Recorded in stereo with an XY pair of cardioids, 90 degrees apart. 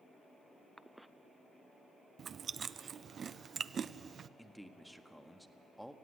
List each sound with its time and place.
0.8 s a cough: 5° right, 0.6 m
2.2 s chewing: 55° right, 0.5 m
4.4 s a man speaking: straight ahead, 1.4 m